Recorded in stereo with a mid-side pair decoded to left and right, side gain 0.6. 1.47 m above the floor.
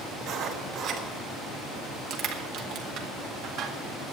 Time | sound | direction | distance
0.2 | writing | 55° right | 3 m
2.1 | crushing | 65° right | 1.9 m